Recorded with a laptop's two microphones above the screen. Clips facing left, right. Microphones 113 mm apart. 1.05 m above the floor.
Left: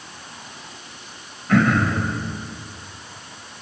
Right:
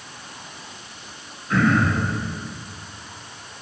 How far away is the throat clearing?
About 1.1 m.